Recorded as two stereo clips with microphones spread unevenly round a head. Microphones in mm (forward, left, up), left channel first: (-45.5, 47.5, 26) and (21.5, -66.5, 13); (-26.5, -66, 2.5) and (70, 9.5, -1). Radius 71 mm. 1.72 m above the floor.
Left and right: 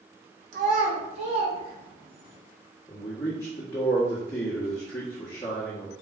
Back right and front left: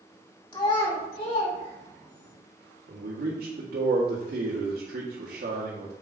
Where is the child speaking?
90° right, 2.5 m; by 2.3 s 115° right, 3.5 m.